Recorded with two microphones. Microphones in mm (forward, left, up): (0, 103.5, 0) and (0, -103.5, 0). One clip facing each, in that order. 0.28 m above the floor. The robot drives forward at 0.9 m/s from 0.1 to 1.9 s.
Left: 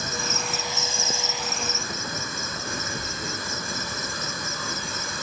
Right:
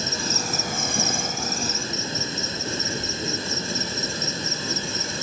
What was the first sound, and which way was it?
An insect, 30° right (ahead or behind).